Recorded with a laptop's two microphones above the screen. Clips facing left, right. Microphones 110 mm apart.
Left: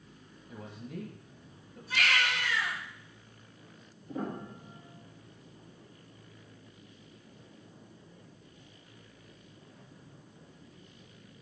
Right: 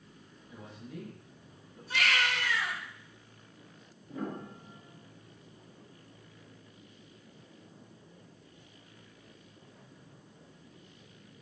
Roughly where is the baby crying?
Right.